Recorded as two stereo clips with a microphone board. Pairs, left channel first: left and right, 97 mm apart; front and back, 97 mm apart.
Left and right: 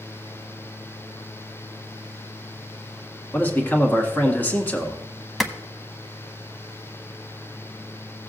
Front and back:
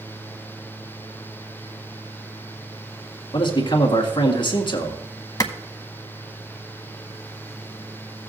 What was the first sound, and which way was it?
A man speaking, 20° left.